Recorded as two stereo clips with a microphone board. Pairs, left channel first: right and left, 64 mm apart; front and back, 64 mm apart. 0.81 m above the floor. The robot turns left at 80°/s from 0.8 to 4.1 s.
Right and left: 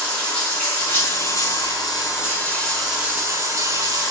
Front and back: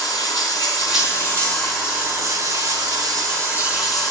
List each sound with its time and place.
0.0 s running water: 20° right, 4.5 m; by 4.1 s 75° left, 4.5 m